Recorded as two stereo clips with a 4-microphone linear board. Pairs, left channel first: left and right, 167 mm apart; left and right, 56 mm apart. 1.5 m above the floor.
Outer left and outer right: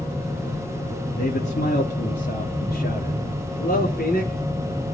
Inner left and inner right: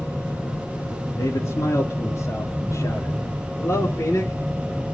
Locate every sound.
1.2 s a man speaking: 85° left, 3 m; by 4.3 s 65° left (ahead or behind), 5.5 m